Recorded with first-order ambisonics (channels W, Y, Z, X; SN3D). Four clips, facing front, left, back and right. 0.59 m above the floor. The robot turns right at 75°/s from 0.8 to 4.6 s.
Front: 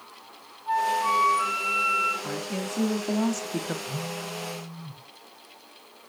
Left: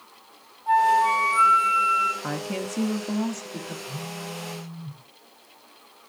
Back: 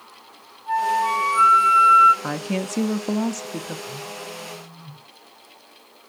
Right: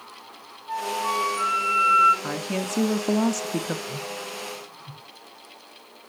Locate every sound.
0.7 s a flute: 95° left, 3.5 m; by 2.1 s 165° right, 3.5 m
2.2 s a woman speaking: straight behind, 0.7 m; by 3.8 s 65° right, 0.7 m
3.9 s a phone buzzing: 5° right, 3.5 m; by 5.0 s 50° left, 3.5 m